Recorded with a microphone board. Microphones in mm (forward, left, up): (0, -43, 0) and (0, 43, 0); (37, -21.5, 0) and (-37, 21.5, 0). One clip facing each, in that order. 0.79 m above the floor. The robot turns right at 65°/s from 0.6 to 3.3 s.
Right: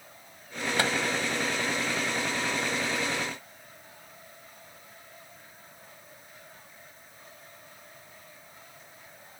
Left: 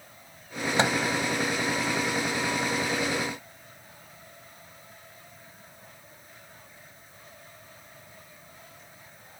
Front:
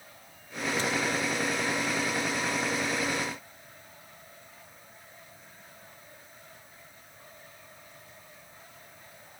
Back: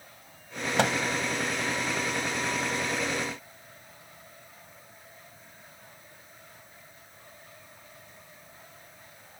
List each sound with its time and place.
0.8 s a microwave: 155° left; by 1.0 s 170° left